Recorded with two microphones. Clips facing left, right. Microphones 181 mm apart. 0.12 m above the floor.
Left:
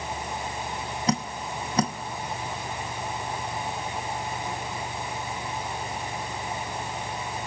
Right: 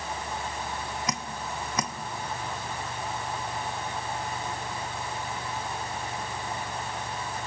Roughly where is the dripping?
Left.